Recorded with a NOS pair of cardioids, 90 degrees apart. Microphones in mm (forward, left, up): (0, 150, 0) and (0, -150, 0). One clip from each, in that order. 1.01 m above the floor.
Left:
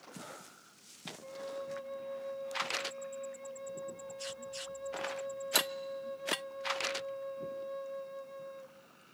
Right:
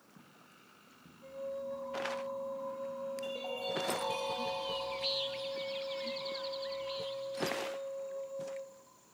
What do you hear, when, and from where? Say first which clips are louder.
1.2 s a flute: right 2 dB; 30° left, 0.8 m